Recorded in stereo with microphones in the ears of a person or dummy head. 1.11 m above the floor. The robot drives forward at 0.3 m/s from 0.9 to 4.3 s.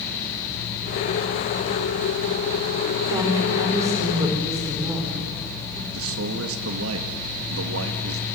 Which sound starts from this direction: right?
A man speaking, at 5.9 s.